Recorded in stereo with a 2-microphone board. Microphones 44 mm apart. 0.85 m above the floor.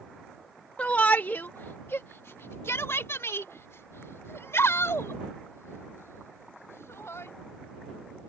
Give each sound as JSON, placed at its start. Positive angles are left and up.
{"t": 0.8, "sound": "a shout", "side_deg": 30}